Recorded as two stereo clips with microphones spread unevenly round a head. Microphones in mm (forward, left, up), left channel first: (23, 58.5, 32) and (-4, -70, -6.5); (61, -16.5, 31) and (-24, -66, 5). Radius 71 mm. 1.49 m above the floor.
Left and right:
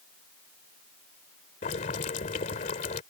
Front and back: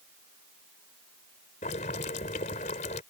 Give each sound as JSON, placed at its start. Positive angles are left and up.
{"t": 1.6, "sound": "boiling", "azimuth_deg": 45}